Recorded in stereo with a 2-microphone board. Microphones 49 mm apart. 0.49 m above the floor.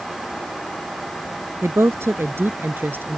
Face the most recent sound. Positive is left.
turn(degrees=-50)  # may be behind; listen again after turning